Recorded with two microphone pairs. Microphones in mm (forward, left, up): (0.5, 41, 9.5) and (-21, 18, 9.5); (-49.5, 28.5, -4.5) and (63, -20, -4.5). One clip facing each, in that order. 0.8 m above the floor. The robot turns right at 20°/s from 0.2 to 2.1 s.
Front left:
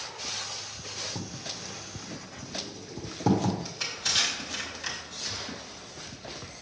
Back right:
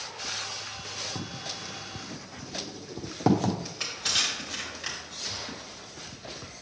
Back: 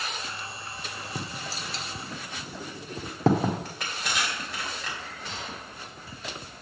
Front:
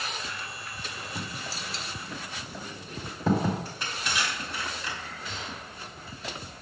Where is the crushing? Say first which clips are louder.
Even, back 1 dB; 145° left, 3 m.